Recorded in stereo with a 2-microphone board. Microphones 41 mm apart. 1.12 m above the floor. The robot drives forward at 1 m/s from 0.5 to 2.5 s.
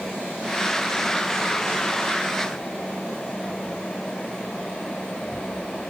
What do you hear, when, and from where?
Only background noise.